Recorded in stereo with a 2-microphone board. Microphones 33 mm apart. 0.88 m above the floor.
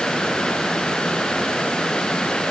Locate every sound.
Only background noise.